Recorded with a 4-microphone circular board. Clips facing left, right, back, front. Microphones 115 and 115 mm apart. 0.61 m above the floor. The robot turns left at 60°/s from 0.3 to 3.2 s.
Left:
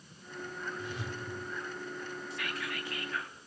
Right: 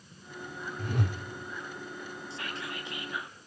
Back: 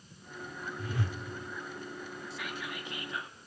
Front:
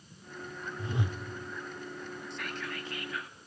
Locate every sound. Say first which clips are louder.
0.8 s a whoosh: right 5 dB, front 2 dB; 55° right, 1.3 m; by 1.2 s 80° right, 1.3 m
2.3 s whispering: right 1 dB, front 1 dB; 95° right, 1.2 m; by 3.4 s 150° right, 1.2 m